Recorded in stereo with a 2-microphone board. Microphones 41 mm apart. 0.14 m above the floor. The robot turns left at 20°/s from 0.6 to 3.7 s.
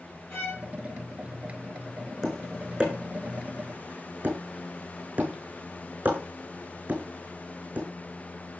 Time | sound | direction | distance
0.3 | a violin | 50° left (ahead or behind) | 6 m
2.2 | tapping | 5° right (ahead or behind) | 5.5 m